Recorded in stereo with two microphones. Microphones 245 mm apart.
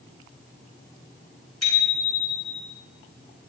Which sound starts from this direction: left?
A bicycle bell, at 1.6 s.